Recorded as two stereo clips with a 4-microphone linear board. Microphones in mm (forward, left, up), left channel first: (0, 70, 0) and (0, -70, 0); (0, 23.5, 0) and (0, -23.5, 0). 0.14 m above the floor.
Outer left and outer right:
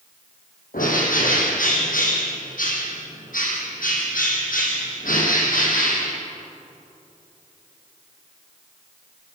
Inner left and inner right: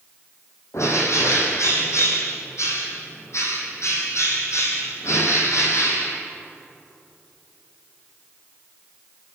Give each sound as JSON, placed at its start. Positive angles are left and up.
{"t": 0.7, "sound": "a bird", "side_deg": 75, "distance_m": 5.0}